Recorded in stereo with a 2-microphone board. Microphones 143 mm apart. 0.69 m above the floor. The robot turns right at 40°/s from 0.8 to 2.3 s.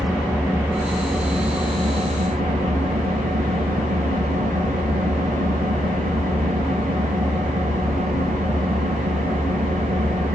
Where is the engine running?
175° left, 6.5 m; by 10.4 s 125° right, 6.5 m.